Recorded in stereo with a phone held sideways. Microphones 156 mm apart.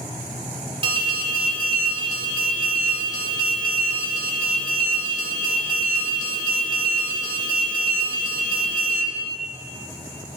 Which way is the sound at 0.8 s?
35° right (ahead or behind).